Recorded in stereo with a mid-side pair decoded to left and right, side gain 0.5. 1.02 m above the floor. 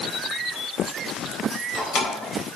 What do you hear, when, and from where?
1.5 s keys jangling: 60° left, 3.5 m